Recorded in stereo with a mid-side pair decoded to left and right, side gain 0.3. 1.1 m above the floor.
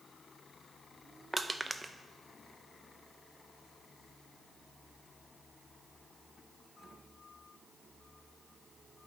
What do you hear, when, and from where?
1.3 s crushing: 25° right, 0.6 m